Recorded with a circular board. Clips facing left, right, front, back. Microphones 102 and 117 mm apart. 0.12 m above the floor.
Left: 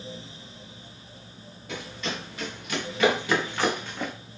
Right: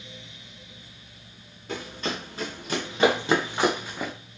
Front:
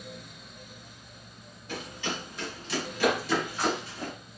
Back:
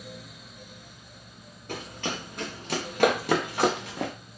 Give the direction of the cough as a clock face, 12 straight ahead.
No cough in this recording.